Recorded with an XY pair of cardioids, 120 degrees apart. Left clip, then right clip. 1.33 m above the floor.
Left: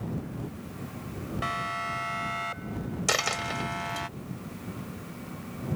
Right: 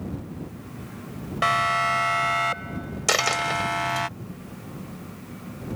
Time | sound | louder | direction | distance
1.4 | a siren | right 10 dB | 50° right | ?
3.1 | a dropped coin | right 6 dB | 25° right | ?